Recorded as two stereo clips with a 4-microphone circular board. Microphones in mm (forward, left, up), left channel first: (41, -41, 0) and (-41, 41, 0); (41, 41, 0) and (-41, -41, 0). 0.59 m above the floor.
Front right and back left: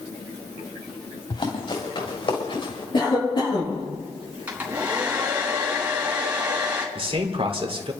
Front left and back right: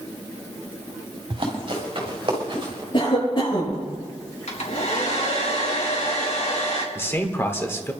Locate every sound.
1.3 s running footsteps: 90° right, 6 m; by 2.8 s 85° right, 7 m
2.9 s a cough: straight ahead, 9 m
4.5 s a hair dryer: 55° left, 3.5 m
7.0 s a man speaking: 110° left, 2 m